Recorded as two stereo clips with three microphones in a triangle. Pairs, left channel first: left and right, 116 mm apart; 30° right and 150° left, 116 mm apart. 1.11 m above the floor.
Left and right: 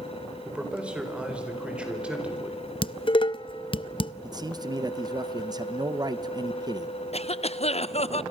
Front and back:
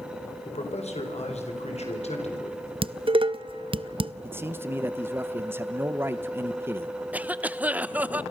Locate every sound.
0.5 s a man speaking: 10° right, 4.5 m
2.8 s dishes clattering: 120° left, 0.6 m
4.2 s a man speaking: 140° right, 0.9 m
7.1 s a cough: 75° left, 0.8 m